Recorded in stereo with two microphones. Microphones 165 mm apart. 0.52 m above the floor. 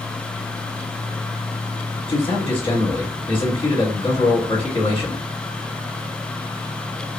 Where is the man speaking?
35° left (ahead or behind), 1.7 m.